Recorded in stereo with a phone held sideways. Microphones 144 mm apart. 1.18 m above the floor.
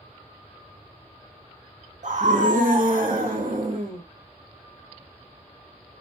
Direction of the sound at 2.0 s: 60° right (ahead or behind).